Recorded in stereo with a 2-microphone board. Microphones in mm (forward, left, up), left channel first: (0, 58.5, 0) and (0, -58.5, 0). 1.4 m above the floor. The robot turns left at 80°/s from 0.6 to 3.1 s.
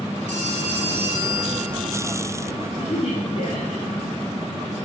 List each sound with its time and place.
0.3 s a phone ringing: 85° right, 4.5 m; by 2.2 s 150° left, 4.5 m
2.8 s a woman speaking: 35° left (ahead or behind), 3 m; by 4.1 s 65° left (ahead or behind), 3 m